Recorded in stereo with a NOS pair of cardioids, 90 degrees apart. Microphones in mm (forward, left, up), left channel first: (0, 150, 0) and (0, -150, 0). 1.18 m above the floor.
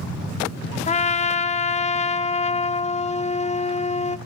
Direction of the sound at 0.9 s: 25° left.